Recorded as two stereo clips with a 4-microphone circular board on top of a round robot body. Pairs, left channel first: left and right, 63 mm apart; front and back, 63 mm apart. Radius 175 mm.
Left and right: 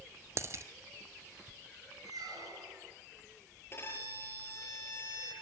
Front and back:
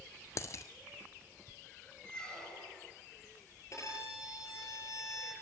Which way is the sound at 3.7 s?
40° left.